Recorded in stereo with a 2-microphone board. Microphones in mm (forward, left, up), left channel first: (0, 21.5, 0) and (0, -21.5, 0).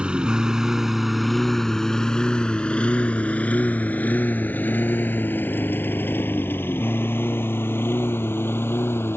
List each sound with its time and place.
0.0 s a lawn mower: 25° right (ahead or behind); by 9.2 s 60° left (ahead or behind)